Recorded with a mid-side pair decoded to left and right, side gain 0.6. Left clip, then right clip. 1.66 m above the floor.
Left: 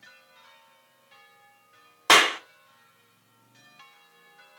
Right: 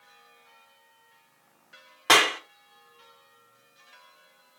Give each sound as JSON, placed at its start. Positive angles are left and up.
{"t": 2.1, "sound": "a clap", "azimuth_deg": 15, "distance_m": 1.4}